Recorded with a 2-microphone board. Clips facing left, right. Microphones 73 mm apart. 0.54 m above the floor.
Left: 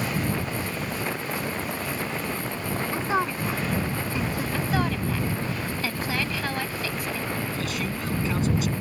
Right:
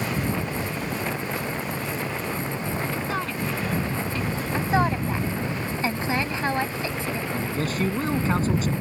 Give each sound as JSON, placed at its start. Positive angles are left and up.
{"t": 2.9, "sound": "a woman speaking", "side_deg": 25}
{"t": 4.5, "sound": "a woman speaking", "side_deg": -25}
{"t": 7.3, "sound": "a man speaking", "side_deg": -40}